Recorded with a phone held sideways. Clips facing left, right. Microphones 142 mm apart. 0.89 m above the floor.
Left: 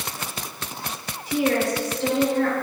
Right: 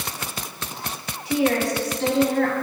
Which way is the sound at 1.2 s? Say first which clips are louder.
Right 1 dB; 80° right.